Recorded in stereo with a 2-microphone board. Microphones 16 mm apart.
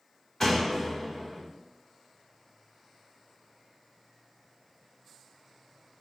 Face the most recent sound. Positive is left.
turn(degrees=25)  # may be behind; listen again after turning